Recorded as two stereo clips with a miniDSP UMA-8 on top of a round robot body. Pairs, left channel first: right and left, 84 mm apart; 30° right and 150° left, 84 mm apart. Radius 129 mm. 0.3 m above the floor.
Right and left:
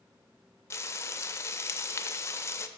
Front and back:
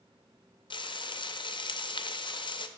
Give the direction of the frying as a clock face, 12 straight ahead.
1 o'clock.